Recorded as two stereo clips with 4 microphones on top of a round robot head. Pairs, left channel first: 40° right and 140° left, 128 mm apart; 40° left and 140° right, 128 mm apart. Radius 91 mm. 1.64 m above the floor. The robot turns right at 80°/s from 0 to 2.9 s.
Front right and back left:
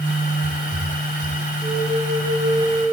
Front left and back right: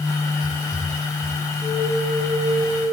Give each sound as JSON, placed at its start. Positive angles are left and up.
{"t": 1.6, "sound": "a flute", "azimuth_deg": 120, "distance_m": 3.5}